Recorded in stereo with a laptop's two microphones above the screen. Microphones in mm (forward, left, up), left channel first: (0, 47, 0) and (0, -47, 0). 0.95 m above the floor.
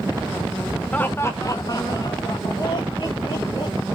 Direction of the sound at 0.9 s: 15° left (ahead or behind).